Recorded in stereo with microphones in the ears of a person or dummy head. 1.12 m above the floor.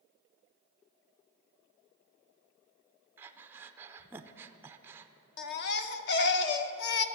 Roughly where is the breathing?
Centre.